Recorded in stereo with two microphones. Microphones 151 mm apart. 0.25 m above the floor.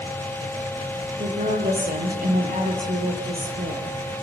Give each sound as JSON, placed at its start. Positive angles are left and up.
{"t": 1.2, "sound": "a woman speaking", "side_deg": -80, "distance_m": 7.0}